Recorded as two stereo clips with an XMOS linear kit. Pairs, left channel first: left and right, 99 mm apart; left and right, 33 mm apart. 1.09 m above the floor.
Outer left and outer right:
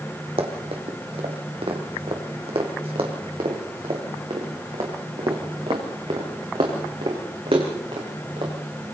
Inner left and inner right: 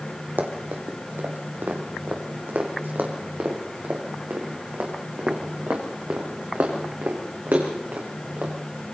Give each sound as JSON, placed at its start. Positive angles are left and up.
{"t": 0.4, "sound": "running footsteps", "side_deg": -75, "distance_m": 3.5}